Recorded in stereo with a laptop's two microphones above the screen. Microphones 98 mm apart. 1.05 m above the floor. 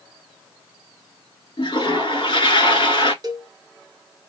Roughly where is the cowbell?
Right.